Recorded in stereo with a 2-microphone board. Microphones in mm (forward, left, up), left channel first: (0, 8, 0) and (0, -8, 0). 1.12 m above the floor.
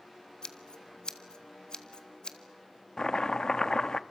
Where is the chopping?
40° left (ahead or behind), 0.7 m.